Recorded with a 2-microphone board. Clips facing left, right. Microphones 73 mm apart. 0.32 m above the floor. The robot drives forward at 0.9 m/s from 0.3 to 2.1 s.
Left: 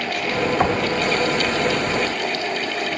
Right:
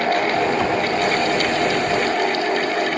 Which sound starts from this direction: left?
Knocking, at 0.6 s.